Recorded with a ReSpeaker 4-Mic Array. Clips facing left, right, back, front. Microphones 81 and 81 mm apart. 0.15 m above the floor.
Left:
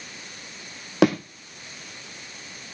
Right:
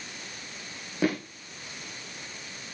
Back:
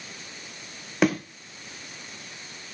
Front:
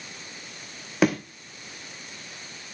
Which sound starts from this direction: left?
A thud, at 1.0 s.